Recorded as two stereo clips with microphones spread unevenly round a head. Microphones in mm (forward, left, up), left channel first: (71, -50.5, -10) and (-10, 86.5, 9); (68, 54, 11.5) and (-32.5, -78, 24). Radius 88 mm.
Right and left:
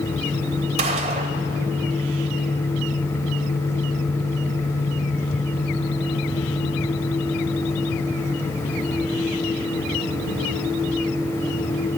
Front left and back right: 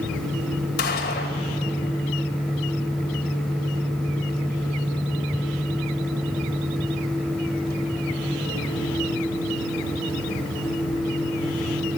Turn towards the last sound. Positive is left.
turn(degrees=85)